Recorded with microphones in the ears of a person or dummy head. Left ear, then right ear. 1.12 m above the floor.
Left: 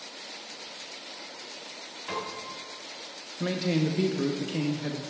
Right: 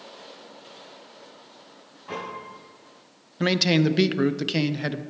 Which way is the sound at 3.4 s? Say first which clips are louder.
Right 7 dB; 50° right (ahead or behind).